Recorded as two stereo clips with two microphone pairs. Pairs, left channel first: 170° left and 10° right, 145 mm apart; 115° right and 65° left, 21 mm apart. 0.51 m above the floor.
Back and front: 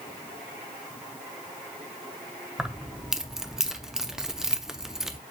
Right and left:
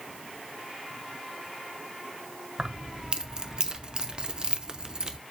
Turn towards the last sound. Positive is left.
turn(degrees=80)